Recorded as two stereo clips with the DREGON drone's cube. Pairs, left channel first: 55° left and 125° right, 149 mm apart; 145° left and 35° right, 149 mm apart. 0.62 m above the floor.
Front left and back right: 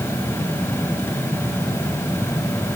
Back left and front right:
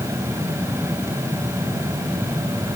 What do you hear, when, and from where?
Only background noise.